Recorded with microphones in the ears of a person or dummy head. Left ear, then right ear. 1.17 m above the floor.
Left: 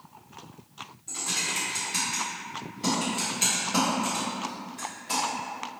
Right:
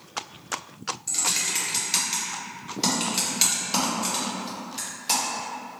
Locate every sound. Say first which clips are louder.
1.1 s typing on a keyboard: right 3 dB; 40° right (ahead or behind), 1.2 m